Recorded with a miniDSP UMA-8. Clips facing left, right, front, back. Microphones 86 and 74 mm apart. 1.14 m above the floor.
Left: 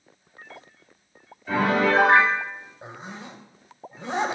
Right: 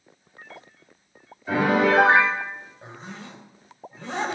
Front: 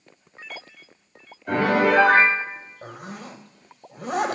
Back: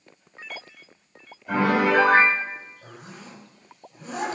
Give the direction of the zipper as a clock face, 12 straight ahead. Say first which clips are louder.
Left 1 dB, front 6 dB; 11 o'clock.